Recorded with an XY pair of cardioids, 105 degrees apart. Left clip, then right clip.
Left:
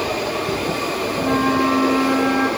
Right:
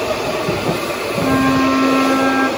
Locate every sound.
1.2 s a flute: 30° right, 0.5 m